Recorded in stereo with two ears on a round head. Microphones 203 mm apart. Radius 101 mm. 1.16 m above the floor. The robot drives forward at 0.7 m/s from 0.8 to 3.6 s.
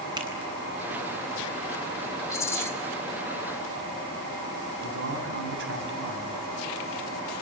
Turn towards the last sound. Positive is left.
turn(degrees=-55)  # may be behind; listen again after turning